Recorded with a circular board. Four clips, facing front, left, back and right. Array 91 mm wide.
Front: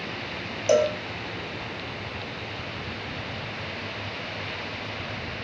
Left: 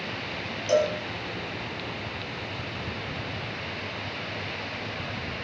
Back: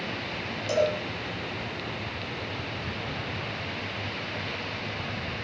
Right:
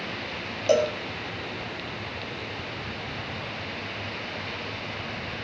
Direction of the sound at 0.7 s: 45° right.